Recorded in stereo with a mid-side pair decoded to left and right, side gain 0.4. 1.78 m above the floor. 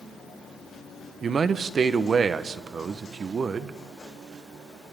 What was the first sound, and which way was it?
A man speaking, 50° right.